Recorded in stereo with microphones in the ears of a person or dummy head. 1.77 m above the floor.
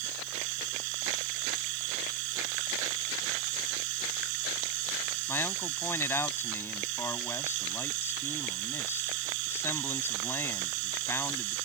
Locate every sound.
0.0 s running water: 70° right (ahead or behind)
5.3 s a man speaking: 10° left (ahead or behind)